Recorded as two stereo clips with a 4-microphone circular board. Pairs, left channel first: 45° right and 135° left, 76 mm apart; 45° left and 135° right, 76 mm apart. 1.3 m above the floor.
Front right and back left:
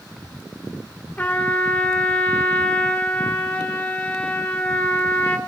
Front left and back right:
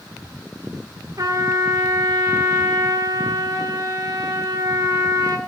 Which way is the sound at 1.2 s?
110° right.